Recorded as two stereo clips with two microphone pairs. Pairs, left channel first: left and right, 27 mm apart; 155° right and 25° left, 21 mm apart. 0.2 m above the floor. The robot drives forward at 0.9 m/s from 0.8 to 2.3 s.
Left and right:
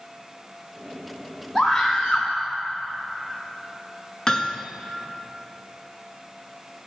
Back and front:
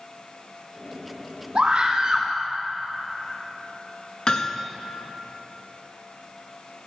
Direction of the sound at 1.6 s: 40° left.